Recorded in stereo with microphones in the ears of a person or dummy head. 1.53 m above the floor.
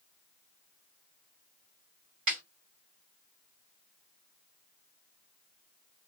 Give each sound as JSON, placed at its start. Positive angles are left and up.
{"t": 2.3, "sound": "a snare drum", "side_deg": -45, "distance_m": 1.8}